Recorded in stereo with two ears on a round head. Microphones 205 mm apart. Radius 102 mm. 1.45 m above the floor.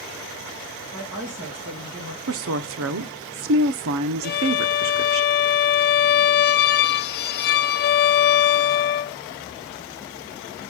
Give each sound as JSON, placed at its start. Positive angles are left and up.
{"t": 0.9, "sound": "a woman speaking", "side_deg": -70, "distance_m": 3.0}
{"t": 2.3, "sound": "a woman speaking", "side_deg": -65, "distance_m": 0.8}
{"t": 4.2, "sound": "a violin", "side_deg": 45, "distance_m": 0.5}